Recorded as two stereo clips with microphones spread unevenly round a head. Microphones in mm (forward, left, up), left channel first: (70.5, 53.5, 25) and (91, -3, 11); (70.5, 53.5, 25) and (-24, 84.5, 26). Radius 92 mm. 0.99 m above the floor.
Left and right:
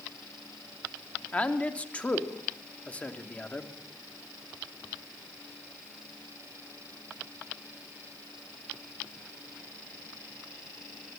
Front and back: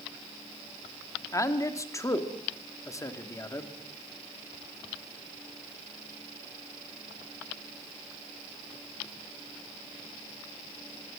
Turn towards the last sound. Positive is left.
turn(degrees=40)